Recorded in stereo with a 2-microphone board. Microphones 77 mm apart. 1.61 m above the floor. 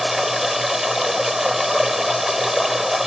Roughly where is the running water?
Centre.